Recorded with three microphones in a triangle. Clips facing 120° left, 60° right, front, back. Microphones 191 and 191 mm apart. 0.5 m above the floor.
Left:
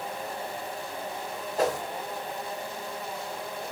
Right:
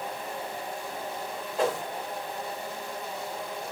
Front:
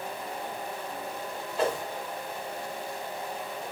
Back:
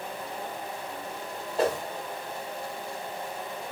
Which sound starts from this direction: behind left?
A whoosh, at 1.6 s.